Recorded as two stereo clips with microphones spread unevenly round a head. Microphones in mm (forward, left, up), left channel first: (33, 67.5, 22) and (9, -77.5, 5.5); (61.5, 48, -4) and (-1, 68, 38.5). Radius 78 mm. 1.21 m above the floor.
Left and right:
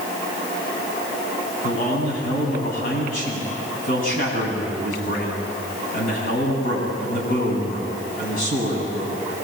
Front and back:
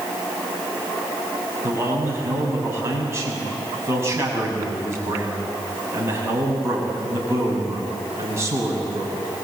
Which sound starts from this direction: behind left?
A man speaking, at 1.6 s.